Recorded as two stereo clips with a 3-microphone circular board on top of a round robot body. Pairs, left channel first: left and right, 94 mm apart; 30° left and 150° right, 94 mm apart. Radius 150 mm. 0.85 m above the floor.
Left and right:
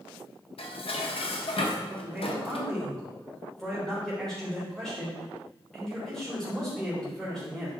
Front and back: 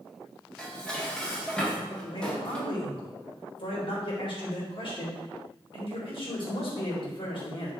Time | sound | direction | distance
0.6 | dishes clattering | 115° left | 1.3 m
1.9 | a man speaking | 5° left | 3.5 m